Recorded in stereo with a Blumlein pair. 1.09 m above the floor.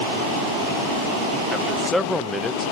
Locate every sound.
1.5 s a man speaking: straight ahead, 0.6 m